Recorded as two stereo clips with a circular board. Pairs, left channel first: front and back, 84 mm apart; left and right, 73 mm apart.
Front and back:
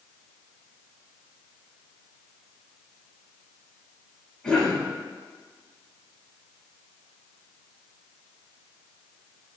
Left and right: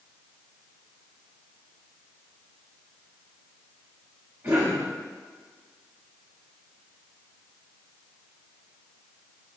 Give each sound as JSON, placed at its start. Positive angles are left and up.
{"t": 4.4, "sound": "a cough", "azimuth_deg": -65, "distance_m": 1.1}